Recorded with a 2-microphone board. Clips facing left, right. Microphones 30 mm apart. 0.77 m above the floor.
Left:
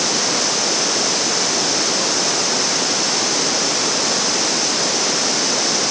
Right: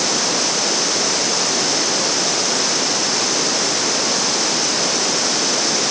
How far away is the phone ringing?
No phone ringing in this recording.